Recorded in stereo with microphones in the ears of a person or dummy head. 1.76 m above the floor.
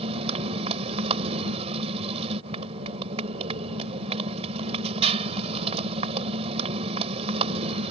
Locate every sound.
0.0 s a motorcycle: 40° right (ahead or behind)